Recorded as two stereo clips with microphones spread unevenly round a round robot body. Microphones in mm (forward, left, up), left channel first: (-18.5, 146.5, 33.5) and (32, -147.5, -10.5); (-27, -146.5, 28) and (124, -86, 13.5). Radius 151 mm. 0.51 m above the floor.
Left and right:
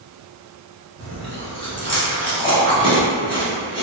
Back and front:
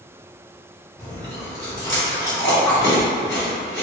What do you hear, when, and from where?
1.0 s chewing: 165° left, 0.9 m